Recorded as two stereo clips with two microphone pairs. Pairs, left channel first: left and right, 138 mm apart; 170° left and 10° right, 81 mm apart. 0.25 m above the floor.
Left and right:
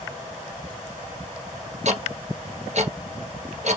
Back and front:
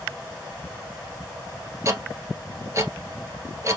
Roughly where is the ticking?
Ahead right.